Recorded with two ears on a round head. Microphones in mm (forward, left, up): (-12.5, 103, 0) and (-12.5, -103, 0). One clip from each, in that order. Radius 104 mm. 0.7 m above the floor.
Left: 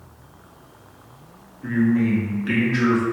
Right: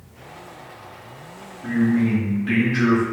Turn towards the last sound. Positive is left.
turn(degrees=30)  # may be behind; listen again after turning